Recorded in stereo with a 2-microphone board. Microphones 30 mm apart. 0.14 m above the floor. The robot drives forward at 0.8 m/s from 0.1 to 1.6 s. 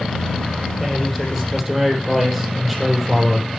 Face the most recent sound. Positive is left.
turn(degrees=-5)  # may be behind; listen again after turning